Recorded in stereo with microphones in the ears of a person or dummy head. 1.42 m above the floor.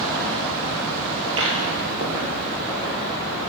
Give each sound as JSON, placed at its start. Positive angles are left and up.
{"t": 1.3, "sound": "footsteps", "side_deg": -25, "distance_m": 1.9}